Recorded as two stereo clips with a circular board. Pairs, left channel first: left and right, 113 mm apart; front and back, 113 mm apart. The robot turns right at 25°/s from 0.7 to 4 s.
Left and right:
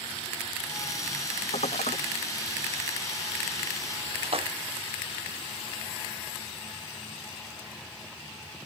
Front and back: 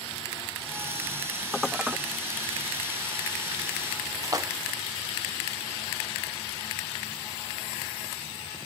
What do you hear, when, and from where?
1.5 s dishes clattering: 90° left; by 2.0 s 100° left
4.2 s a splash: 120° right